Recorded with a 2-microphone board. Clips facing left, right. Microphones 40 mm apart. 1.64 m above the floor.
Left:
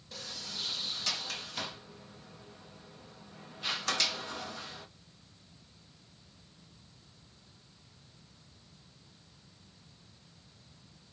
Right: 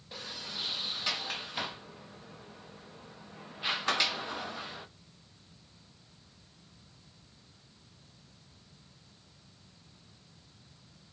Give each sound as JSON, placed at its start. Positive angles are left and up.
{"t": 0.1, "sound": "a sliding door", "side_deg": -20, "distance_m": 0.7}